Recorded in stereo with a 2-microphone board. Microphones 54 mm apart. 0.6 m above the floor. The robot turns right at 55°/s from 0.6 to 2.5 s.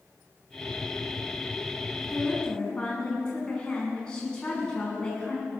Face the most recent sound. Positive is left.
turn(degrees=15)  # may be behind; listen again after turning